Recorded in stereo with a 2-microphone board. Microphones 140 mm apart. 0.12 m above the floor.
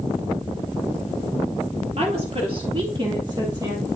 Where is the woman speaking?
50° right (ahead or behind), 1.8 m; by 3.9 s 30° right (ahead or behind), 3 m.